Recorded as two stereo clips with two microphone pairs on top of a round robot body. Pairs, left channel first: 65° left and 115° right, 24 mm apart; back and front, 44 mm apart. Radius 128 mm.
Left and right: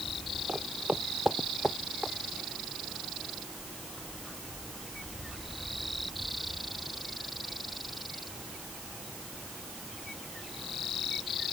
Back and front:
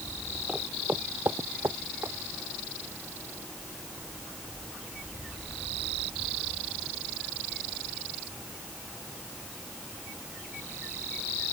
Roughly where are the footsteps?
Right.